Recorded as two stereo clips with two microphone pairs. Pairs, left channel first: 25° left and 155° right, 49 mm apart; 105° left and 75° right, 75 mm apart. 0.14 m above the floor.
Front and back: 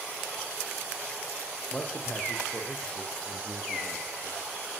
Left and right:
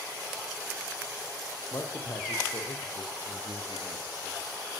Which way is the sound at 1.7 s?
65° left.